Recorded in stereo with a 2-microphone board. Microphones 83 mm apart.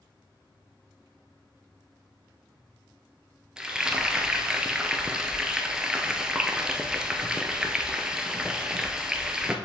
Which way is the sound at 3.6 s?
10° right (ahead or behind).